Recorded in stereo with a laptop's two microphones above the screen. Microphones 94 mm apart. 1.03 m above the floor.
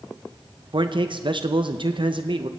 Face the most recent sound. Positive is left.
turn(degrees=-60)  # may be behind; listen again after turning